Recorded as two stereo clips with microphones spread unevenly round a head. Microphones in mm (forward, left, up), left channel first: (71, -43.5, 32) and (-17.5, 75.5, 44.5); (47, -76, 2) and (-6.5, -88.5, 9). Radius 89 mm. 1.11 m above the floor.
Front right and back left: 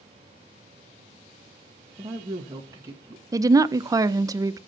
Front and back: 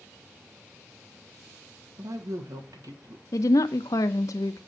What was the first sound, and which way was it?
A woman speaking, 160° right.